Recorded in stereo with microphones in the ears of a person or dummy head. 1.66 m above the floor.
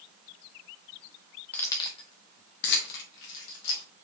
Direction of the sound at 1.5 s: 10° left (ahead or behind).